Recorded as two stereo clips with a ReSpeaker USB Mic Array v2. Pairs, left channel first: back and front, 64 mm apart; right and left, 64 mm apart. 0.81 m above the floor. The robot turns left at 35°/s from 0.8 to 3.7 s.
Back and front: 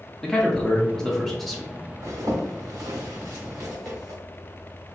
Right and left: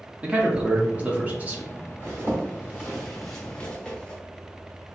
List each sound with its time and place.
0.2 s a man speaking: 120° left, 0.6 m; by 1.7 s 85° left, 0.6 m
2.0 s a zipper: 40° left, 0.9 m; by 4.2 s 20° right, 0.9 m